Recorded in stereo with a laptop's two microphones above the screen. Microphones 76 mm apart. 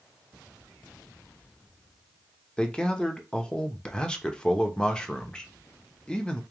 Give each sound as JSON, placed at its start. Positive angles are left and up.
{"t": 2.6, "sound": "a man speaking", "side_deg": 10, "distance_m": 0.9}